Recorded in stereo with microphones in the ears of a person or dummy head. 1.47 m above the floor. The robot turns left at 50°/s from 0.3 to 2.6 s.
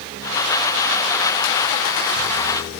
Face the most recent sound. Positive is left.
No sound to turn to.